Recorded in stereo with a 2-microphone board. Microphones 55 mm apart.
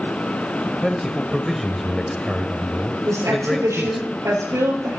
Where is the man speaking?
Centre (ahead or behind), 1.2 m.